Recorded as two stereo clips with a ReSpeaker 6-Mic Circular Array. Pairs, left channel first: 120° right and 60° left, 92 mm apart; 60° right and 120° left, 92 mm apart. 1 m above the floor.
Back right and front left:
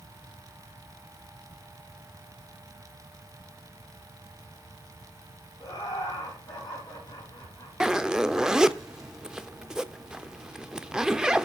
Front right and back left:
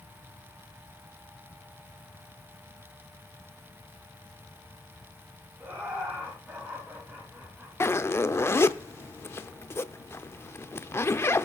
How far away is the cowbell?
I don't hear a cowbell.